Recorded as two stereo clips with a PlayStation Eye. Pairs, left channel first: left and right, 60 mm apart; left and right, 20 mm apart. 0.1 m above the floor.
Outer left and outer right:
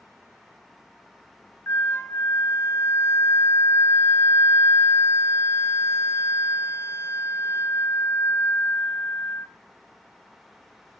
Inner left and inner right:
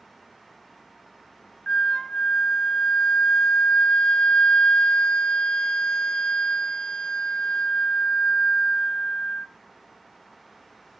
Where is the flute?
50° left (ahead or behind), 0.5 m.